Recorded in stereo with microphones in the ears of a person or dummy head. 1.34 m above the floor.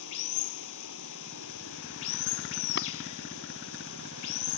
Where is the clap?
55° left (ahead or behind).